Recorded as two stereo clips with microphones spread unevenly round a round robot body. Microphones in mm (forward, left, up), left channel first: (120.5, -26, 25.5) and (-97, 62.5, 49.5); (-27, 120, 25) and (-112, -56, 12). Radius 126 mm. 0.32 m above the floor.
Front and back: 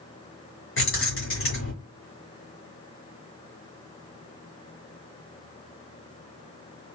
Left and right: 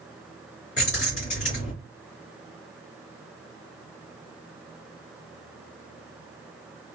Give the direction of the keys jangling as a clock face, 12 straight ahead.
12 o'clock.